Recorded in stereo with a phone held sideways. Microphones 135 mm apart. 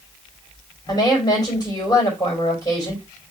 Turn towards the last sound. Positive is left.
turn(degrees=25)  # may be behind; listen again after turning